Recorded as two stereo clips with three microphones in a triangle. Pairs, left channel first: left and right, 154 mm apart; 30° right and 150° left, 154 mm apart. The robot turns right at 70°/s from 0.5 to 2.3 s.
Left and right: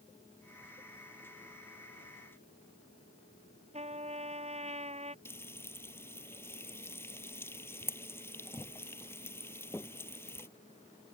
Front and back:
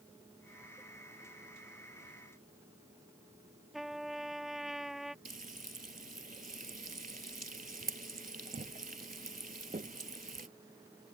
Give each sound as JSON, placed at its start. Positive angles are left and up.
{"t": 3.7, "sound": "a trumpet", "azimuth_deg": -120}
{"t": 5.2, "sound": "frying", "azimuth_deg": 160}